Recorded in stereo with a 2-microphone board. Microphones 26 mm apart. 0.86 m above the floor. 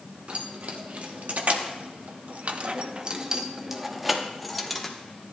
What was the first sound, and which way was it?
Keys jangling, 60° right (ahead or behind).